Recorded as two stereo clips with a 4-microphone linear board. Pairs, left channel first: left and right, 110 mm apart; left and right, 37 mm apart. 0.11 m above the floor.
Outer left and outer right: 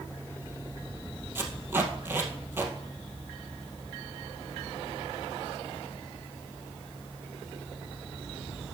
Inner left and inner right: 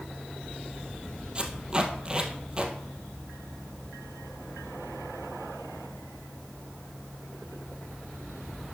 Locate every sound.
1.4 s tape being pulled: 20° right (ahead or behind), 2.0 m